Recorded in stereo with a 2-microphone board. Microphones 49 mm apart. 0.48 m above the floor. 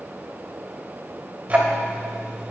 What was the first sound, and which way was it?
Ticking, 30° right (ahead or behind).